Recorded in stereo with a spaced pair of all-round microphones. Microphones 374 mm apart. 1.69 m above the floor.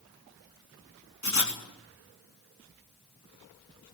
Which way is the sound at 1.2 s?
45° left (ahead or behind).